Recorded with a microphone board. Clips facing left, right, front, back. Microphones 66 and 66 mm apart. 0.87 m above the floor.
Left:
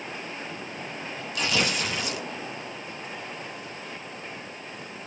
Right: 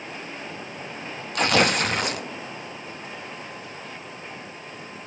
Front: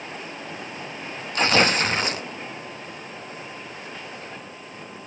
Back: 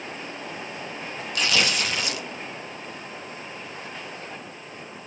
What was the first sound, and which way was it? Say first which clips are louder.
Tearing paper: right 7 dB, front 5 dB; 50° right.